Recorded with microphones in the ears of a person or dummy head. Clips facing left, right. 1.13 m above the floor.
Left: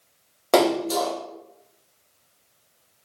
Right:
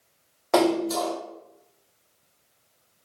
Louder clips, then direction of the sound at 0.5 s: Left 2 dB; 45° left (ahead or behind).